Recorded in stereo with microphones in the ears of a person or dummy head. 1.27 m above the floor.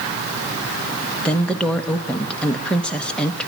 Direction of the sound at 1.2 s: 5° left (ahead or behind).